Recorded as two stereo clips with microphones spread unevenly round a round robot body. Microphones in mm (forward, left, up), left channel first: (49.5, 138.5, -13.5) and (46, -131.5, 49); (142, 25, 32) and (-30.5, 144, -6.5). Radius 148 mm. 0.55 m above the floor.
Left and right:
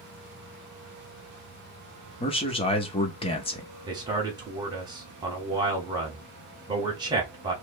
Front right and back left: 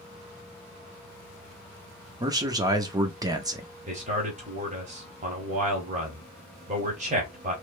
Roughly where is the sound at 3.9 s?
Behind.